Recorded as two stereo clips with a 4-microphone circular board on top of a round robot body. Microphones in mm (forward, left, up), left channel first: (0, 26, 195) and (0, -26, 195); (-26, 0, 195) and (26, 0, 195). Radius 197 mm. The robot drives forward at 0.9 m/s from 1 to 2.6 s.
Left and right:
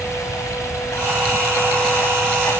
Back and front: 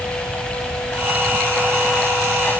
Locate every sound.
0.0 s running water: 105° left; by 2.6 s 120° left